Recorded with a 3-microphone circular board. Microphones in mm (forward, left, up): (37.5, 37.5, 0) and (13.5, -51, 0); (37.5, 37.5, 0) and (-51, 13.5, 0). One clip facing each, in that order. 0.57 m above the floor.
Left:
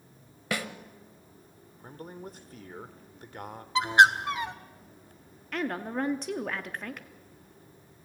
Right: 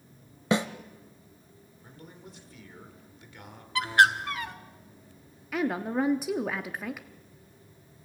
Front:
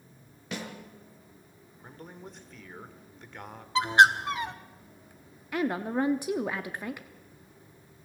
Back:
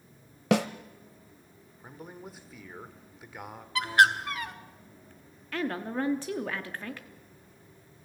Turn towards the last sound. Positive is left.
turn(degrees=-35)